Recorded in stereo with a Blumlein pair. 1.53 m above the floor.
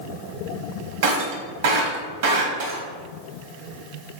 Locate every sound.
1.0 s breaking glass: 50° right, 3.5 m